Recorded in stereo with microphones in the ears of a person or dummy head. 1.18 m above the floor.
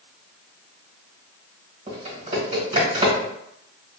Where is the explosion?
I don't hear an explosion.